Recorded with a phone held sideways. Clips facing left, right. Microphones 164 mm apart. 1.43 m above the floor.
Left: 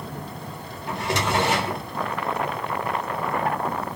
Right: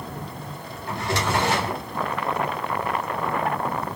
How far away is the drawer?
About 1.9 m.